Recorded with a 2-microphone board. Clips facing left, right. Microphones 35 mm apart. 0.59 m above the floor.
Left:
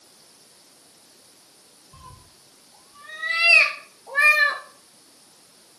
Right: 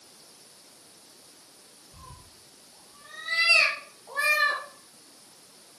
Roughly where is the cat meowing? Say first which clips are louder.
Left 3 dB; left.